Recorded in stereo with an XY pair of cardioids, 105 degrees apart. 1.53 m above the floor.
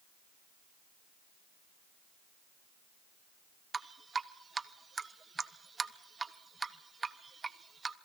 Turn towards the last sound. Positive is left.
turn(degrees=-30)